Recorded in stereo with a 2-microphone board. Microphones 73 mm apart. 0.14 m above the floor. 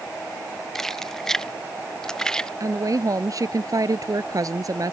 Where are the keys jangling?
5° left (ahead or behind); by 2.5 s 10° left (ahead or behind).